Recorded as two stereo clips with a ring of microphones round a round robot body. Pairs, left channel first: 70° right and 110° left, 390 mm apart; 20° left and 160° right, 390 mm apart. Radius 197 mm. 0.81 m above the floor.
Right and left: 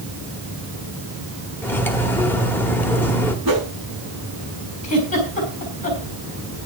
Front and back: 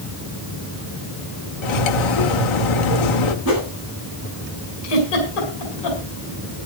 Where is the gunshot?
I don't hear a gunshot.